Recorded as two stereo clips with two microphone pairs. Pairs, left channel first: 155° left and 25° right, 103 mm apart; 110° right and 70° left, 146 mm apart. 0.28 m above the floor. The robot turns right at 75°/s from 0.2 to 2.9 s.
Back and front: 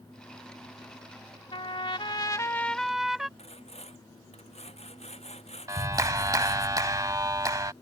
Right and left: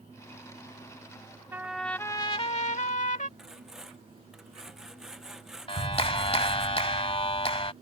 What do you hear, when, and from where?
1.5 s a trumpet: 145° left; by 3.3 s 110° right
3.4 s sawing: 160° left
5.7 s a clap: 70° right